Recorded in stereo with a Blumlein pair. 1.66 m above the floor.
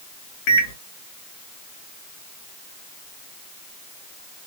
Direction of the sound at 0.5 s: 45° left.